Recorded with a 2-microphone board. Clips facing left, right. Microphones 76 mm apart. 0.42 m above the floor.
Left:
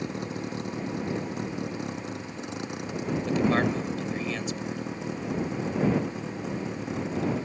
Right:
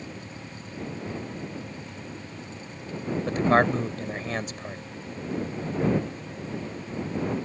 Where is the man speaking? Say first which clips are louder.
Right 4 dB; 45° right (ahead or behind).